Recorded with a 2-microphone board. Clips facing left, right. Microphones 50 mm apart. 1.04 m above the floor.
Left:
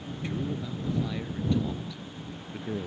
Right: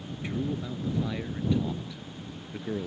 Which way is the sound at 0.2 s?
15° right (ahead or behind).